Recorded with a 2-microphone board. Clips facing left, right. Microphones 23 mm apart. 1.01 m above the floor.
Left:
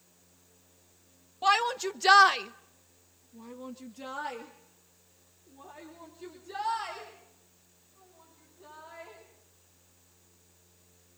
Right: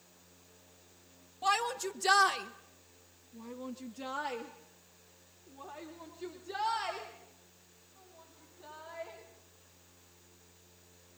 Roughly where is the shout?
Left.